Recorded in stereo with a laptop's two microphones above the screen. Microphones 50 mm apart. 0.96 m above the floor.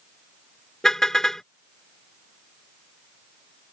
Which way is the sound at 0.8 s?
10° left (ahead or behind).